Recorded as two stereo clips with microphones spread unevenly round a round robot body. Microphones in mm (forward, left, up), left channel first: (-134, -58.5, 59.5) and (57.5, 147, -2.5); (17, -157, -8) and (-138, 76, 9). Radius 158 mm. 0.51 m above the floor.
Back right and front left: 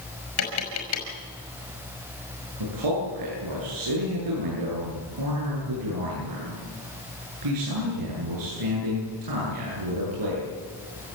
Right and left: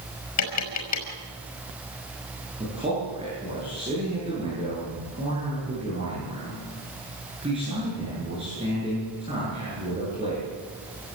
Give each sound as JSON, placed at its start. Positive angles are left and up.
{"t": 0.4, "sound": "tapping", "azimuth_deg": -85, "distance_m": 5.5}
{"t": 2.6, "sound": "a man speaking", "azimuth_deg": 50, "distance_m": 9.0}